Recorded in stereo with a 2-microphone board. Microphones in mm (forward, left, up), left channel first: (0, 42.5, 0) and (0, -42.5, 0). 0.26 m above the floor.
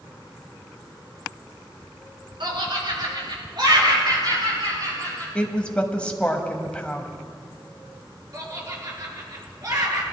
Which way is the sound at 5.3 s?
15° left (ahead or behind).